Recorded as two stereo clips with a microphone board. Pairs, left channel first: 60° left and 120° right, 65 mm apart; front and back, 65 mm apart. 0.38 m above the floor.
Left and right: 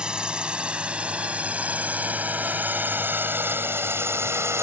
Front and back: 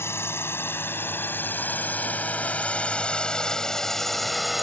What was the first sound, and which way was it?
A drone, 45° right.